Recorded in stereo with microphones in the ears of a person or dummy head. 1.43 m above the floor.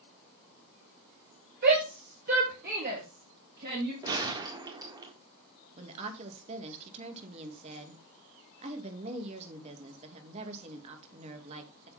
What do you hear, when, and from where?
1.6 s a shout: 55° right (ahead or behind), 2.5 m
4.0 s a gunshot: 25° right (ahead or behind), 1.6 m
5.8 s a woman speaking: 30° right (ahead or behind), 2.5 m